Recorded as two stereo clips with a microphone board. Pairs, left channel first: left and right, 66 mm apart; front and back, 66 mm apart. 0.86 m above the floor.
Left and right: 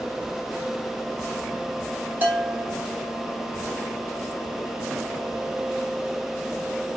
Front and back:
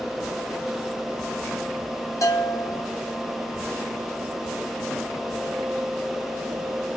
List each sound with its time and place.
2.2 s a bell: 30° right, 2.5 m